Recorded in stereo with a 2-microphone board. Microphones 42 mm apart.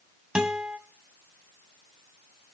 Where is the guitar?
15° right (ahead or behind), 1.9 m.